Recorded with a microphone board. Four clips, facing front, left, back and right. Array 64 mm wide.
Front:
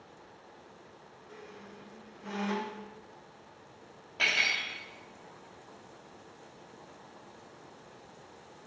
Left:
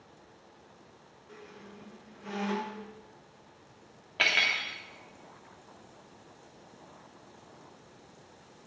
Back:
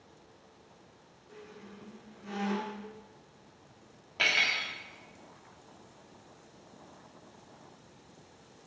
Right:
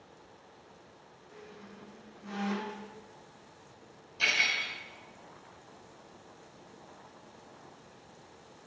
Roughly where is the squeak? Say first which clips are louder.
Left 1 dB, even; ahead left.